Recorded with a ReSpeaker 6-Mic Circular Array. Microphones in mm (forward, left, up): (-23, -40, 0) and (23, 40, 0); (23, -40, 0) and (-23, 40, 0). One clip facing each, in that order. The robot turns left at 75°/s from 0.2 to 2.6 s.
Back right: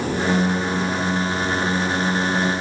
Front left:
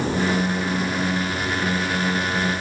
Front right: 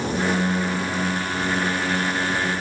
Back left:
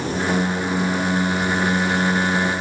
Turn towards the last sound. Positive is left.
No sound to turn to.